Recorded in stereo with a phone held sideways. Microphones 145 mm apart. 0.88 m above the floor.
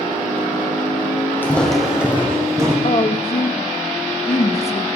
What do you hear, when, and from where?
1.4 s footsteps: 15° left (ahead or behind), 1.6 m; by 2.7 s 25° right (ahead or behind), 2.5 m
2.8 s a woman speaking: 45° left (ahead or behind), 0.7 m